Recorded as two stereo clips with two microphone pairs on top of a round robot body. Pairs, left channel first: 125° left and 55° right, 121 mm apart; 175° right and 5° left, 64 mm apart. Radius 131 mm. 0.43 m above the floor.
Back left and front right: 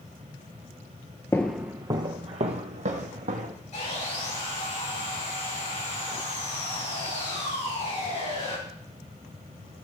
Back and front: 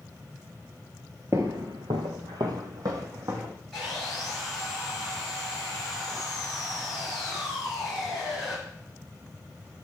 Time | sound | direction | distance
1.3 | footsteps | 55° left | 0.6 m
3.7 | sawing | 105° left | 7 m